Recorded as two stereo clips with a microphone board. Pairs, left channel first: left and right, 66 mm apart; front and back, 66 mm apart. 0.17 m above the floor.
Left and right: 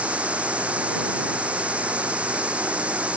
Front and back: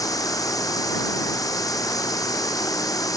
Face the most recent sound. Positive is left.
turn(degrees=-20)